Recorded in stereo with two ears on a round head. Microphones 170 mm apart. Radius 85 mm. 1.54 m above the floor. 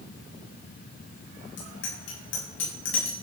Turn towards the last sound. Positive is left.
turn(degrees=80)